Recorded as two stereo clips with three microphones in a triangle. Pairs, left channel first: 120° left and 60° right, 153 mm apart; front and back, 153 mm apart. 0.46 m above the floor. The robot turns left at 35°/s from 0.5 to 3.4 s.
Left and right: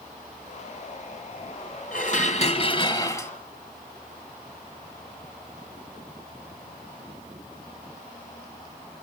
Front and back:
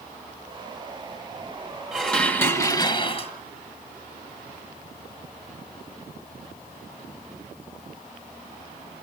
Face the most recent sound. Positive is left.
turn(degrees=40)